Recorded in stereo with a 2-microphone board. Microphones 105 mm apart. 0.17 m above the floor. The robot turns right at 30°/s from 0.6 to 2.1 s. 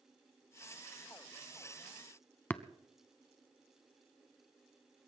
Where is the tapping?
15° left (ahead or behind), 0.7 m.